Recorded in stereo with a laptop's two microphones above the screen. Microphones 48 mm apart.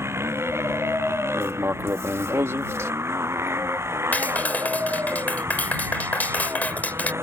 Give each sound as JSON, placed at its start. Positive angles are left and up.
{"t": 0.0, "sound": "a motorcycle", "side_deg": -65}
{"t": 1.3, "sound": "writing", "side_deg": -75}
{"t": 4.1, "sound": "a clap", "side_deg": 35}